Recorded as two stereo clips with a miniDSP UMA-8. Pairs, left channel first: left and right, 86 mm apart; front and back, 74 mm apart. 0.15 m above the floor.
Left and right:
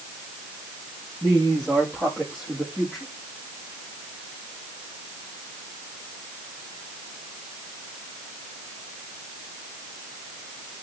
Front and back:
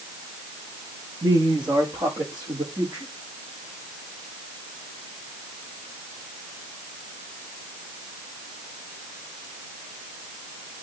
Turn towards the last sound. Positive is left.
turn(degrees=-170)